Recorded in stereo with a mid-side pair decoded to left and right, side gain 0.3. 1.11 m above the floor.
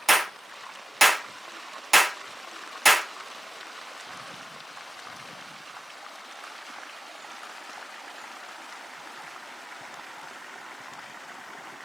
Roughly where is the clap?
Ahead.